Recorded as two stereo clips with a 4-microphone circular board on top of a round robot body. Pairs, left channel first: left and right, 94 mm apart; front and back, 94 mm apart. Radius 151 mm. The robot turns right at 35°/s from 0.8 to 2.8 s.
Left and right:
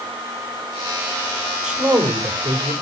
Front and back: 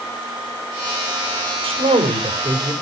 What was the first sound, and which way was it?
A man speaking, 175° right.